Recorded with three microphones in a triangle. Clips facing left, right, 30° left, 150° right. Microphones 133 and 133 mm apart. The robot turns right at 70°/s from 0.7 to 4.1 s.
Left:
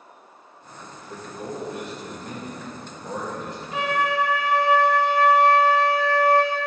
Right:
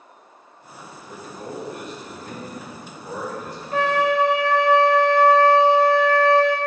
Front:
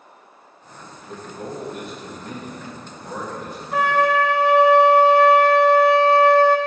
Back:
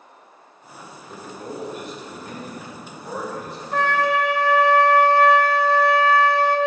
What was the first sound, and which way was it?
A man speaking, 20° right.